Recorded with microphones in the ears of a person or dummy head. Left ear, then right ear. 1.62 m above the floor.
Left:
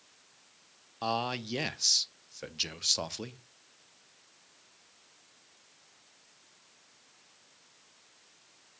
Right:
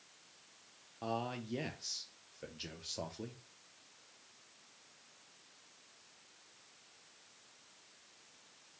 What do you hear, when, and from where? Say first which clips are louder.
1.0 s a man speaking: left 8 dB; 40° left (ahead or behind), 0.5 m